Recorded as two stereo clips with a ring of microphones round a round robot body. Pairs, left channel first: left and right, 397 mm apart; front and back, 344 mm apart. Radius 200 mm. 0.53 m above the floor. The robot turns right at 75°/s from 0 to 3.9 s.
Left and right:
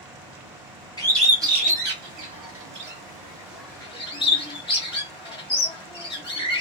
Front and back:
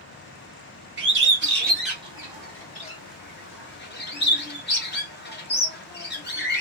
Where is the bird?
160° left, 1.4 m; by 6.6 s 20° left, 1.4 m.